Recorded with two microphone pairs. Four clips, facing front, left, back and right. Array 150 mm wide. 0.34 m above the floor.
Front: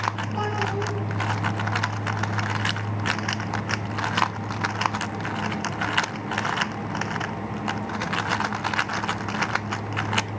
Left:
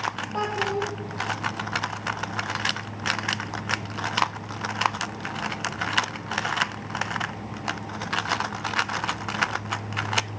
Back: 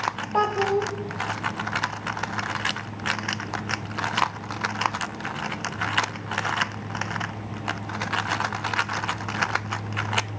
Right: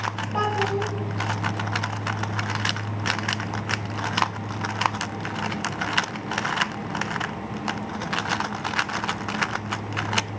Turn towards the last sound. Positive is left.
turn(degrees=-170)